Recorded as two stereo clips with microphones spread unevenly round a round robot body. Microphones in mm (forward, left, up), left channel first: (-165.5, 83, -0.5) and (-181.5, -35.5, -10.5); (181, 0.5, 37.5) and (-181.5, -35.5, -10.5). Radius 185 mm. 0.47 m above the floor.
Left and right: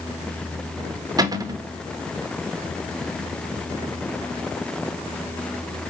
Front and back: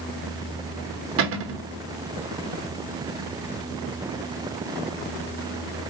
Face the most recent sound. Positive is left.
turn(degrees=-140)